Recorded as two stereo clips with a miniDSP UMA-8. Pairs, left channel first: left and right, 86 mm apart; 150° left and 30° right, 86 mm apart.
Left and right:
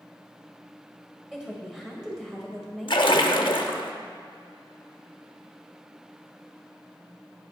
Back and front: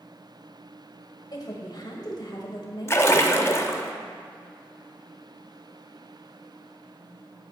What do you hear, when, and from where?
1.3 s a woman speaking: 175° right, 1.8 m
2.9 s a splash: 95° left, 0.6 m